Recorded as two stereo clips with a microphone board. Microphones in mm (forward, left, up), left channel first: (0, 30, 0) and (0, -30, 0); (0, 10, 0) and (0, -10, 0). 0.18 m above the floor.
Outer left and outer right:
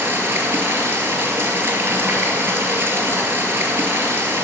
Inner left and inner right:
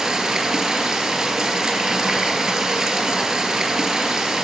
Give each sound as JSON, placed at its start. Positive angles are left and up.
{"t": 0.0, "sound": "running water", "side_deg": -35, "distance_m": 1.8}